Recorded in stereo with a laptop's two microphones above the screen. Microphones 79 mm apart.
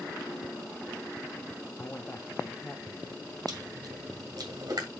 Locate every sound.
1.8 s a man speaking: 30° left (ahead or behind), 0.9 m
3.5 s chewing: 60° right (ahead or behind), 2 m